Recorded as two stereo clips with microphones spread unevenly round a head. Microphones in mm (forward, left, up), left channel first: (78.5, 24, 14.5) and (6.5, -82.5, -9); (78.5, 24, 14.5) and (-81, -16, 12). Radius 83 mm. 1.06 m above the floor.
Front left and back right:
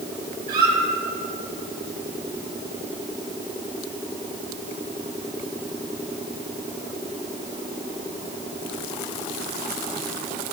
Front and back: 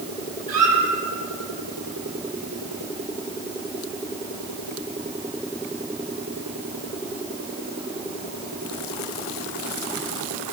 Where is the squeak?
120° right, 3 m.